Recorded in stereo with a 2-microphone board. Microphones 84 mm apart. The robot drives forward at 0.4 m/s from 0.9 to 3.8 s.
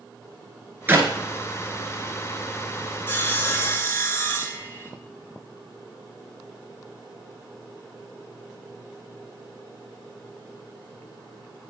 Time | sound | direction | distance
0.9 | a clap | 25° right (ahead or behind) | 1.3 m
3.1 | sawing | 25° left (ahead or behind) | 1.5 m